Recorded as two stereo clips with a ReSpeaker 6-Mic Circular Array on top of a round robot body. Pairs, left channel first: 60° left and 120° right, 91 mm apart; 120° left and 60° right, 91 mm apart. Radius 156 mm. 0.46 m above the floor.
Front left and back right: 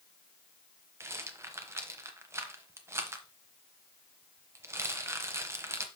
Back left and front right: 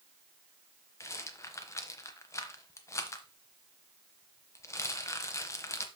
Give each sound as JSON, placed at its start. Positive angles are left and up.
{"t": 1.0, "sound": "a rattle", "azimuth_deg": 180, "distance_m": 0.9}